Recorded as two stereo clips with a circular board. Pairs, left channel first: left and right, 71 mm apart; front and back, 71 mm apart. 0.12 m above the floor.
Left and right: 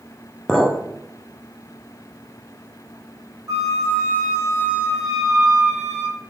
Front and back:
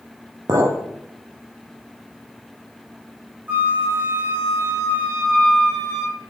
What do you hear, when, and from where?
0.5 s a clink: 175° left, 1.3 m
3.5 s a flute: 120° right, 2.5 m